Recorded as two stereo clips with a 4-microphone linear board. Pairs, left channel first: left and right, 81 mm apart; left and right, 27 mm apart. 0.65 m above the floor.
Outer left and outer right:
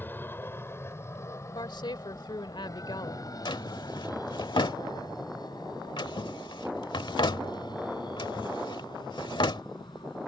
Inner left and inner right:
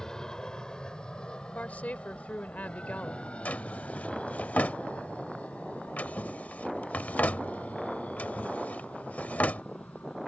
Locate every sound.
0.0 s an aircraft: 25° left (ahead or behind); by 10.3 s 65° left (ahead or behind)
1.6 s a woman speaking: 70° left (ahead or behind)
3.5 s a drawer: 75° left (ahead or behind)